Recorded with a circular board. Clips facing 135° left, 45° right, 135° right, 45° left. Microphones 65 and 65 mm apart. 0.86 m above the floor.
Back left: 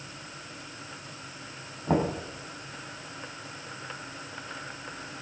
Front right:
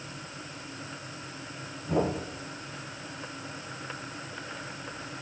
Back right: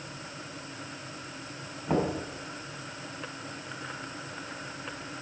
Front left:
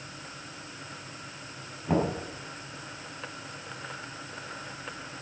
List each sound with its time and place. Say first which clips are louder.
1.9 s knocking: back left 1 dB, front left 1 dB; 135° left, 4.5 m